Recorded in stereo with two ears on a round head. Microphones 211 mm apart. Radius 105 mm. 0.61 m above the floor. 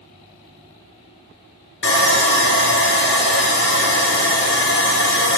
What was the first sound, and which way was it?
Sawing, 50° left (ahead or behind).